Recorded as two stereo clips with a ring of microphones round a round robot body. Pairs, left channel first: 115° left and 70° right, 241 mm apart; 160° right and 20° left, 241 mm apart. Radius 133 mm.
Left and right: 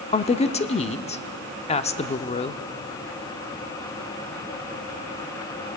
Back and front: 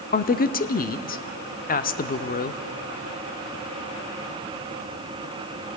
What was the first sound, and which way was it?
A woman speaking, 165° left.